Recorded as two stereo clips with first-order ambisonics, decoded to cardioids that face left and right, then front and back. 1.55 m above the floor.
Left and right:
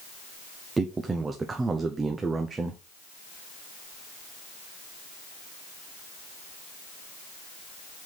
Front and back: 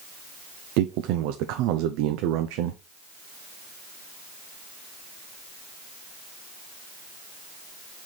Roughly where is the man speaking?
Behind.